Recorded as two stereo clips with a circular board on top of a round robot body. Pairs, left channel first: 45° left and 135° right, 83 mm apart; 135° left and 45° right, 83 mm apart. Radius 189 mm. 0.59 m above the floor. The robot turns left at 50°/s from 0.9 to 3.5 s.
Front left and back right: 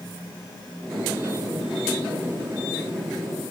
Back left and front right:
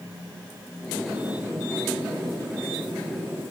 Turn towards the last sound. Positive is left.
No sound to turn to.